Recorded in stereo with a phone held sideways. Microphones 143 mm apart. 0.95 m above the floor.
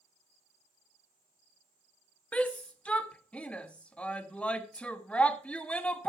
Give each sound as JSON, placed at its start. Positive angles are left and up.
{"t": 2.3, "sound": "a shout", "side_deg": 10, "distance_m": 1.3}